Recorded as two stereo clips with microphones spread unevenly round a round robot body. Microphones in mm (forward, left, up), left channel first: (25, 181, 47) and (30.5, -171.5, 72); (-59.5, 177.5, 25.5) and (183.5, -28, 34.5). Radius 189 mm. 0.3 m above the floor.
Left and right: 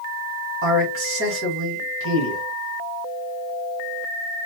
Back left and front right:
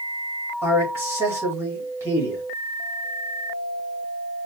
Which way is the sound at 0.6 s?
120° right.